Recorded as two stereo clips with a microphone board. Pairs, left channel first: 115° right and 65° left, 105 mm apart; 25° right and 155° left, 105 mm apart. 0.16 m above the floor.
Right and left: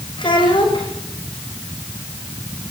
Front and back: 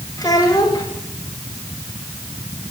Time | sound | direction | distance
0.2 | a child speaking | 75° right | 9 m